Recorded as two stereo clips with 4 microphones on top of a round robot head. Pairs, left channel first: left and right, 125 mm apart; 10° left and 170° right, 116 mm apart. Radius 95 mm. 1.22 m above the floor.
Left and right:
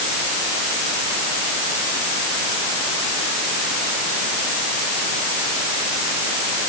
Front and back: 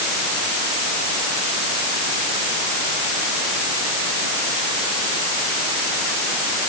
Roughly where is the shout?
I don't hear a shout.